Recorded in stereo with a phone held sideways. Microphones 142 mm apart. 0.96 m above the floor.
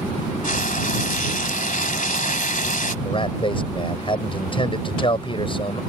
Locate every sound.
0.4 s frying: 70° left (ahead or behind)
3.0 s a man speaking: 40° left (ahead or behind)